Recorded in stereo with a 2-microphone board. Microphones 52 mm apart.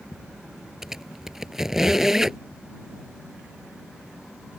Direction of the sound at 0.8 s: 5° right (ahead or behind).